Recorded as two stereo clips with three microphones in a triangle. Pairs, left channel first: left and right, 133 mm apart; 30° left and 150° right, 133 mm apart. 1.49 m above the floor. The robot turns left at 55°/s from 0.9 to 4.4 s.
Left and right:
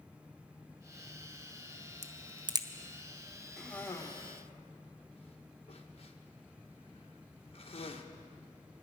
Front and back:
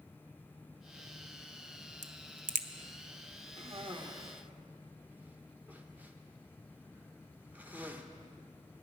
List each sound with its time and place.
2.0 s a crack: 120° right, 0.7 m; by 2.7 s 155° right, 0.7 m
3.6 s a cough: straight behind, 1.4 m; by 8.1 s 135° left, 1.4 m